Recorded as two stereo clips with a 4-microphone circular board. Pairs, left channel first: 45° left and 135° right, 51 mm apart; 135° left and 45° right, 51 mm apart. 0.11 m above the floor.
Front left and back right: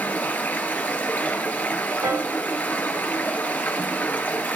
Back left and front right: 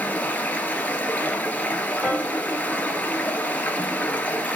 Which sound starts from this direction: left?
Running water, at 0.0 s.